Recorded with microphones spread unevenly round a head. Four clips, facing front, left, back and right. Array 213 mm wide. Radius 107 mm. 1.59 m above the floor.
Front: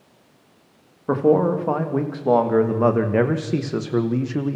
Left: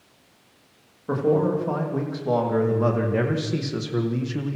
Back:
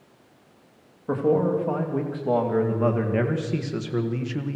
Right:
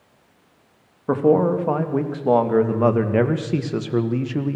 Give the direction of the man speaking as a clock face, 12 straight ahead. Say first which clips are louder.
Right 4 dB, front 4 dB; 1 o'clock.